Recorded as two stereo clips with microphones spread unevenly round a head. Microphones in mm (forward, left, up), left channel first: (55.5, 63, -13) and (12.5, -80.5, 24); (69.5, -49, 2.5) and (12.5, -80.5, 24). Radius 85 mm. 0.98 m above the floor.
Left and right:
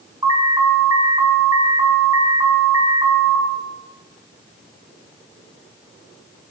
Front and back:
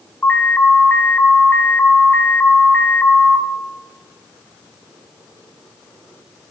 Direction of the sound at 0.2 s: 40° right.